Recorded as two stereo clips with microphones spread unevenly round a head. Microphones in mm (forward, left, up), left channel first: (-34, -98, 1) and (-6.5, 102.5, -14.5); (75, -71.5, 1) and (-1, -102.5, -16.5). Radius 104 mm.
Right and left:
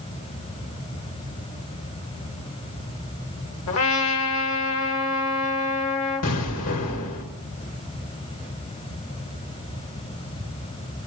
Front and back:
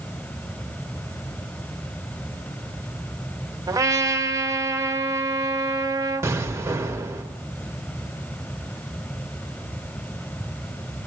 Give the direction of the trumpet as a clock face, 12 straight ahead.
4 o'clock.